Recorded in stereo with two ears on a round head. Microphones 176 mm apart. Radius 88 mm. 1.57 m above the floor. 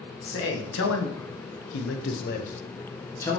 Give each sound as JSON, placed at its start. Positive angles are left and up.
{"t": 0.2, "sound": "a man speaking", "side_deg": 70, "distance_m": 1.8}